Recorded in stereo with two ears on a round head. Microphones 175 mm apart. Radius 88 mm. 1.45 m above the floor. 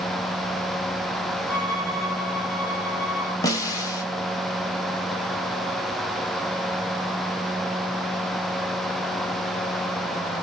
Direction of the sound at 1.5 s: 60° left (ahead or behind).